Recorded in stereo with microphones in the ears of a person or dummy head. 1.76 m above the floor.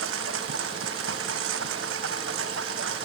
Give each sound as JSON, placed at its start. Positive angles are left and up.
{"t": 0.0, "sound": "a lawn mower", "side_deg": -85}